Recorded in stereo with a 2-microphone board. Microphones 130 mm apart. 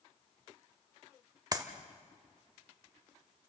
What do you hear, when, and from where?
1.5 s a clap: 30° right (ahead or behind), 1.3 m